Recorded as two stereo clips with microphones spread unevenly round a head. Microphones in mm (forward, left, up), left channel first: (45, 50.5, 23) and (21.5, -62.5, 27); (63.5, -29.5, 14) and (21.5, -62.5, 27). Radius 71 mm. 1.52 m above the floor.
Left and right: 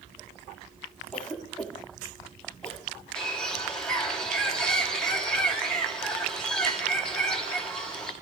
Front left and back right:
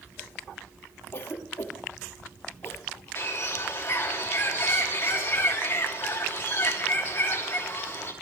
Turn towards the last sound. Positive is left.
turn(degrees=-5)